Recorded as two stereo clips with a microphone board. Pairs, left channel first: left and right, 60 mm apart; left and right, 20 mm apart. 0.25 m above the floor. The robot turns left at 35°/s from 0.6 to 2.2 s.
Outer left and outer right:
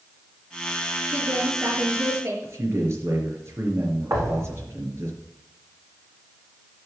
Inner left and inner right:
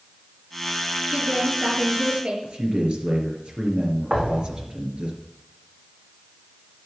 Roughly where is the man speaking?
Right.